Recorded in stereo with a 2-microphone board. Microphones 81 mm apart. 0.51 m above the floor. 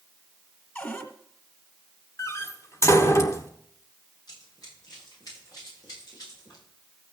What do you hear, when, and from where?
0.8 s a cupboard door: 25° left (ahead or behind), 1.6 m
2.2 s a door slam: 35° left (ahead or behind), 1.0 m
4.3 s running footsteps: 50° left (ahead or behind), 8.5 m; by 6.6 s 45° left (ahead or behind), 11 m